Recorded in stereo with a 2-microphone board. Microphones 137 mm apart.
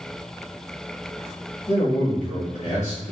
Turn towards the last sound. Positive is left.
turn(degrees=75)  # may be behind; listen again after turning